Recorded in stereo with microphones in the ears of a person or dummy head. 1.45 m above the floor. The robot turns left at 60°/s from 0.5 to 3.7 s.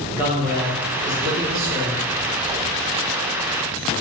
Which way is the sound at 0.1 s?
15° right.